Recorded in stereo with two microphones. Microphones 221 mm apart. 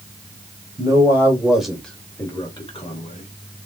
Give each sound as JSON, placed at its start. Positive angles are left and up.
{"t": 0.8, "sound": "a man speaking", "side_deg": -15, "distance_m": 1.4}